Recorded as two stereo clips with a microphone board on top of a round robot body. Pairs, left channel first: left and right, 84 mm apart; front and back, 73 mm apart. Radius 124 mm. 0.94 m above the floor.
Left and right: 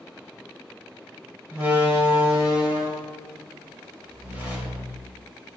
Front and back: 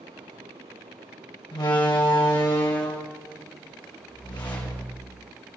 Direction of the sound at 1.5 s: 20° right.